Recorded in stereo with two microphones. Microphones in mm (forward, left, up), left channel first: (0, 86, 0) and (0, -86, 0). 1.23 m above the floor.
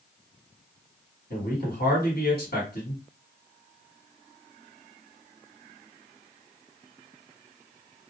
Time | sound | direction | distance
1.3 | a man speaking | 65° left (ahead or behind) | 1.5 m